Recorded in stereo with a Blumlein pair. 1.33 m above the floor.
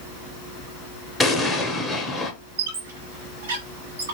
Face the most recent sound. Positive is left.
turn(degrees=-60)